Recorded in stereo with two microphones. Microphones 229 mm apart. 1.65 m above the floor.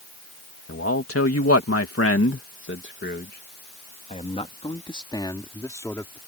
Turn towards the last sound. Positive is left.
turn(degrees=10)  # may be behind; listen again after turning